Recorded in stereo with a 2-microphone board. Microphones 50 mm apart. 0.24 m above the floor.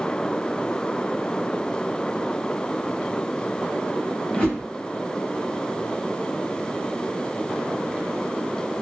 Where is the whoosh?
25° left (ahead or behind), 1.3 m.